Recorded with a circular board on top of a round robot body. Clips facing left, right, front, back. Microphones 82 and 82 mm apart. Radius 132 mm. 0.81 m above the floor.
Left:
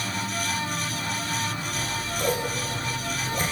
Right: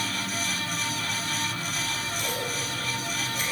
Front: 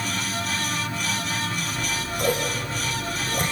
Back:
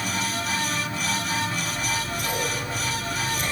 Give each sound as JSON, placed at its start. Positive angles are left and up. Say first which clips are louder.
{"t": 1.7, "sound": "scissors", "louder": "left 2 dB, even", "azimuth_deg": 45, "distance_m": 7.0}